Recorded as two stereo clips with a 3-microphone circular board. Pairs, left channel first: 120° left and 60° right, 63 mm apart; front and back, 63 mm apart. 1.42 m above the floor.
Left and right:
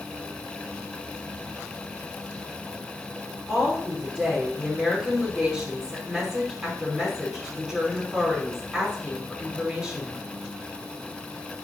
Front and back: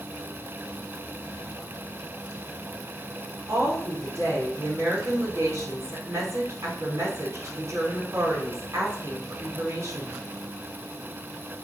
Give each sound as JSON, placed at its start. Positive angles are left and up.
{"t": 3.5, "sound": "a woman speaking", "azimuth_deg": -145, "distance_m": 4.5}